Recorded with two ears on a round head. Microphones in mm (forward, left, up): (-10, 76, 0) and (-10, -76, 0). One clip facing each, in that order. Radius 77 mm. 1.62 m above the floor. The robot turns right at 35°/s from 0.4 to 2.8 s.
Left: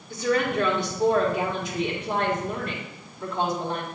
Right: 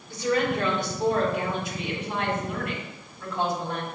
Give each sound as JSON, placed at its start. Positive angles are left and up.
{"t": 0.1, "sound": "a woman speaking", "azimuth_deg": 75, "distance_m": 2.5}